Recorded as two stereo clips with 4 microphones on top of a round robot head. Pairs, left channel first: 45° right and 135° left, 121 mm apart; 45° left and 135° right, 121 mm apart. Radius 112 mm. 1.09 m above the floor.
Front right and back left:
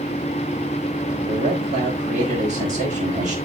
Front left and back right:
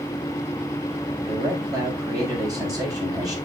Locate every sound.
1.3 s a man speaking: 165° left, 5.5 m